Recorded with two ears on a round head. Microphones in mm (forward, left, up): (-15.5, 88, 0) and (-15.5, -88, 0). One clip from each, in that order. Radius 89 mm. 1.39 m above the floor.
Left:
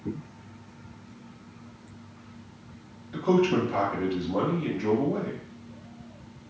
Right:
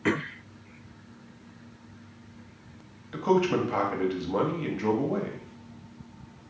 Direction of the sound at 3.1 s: 65° right (ahead or behind).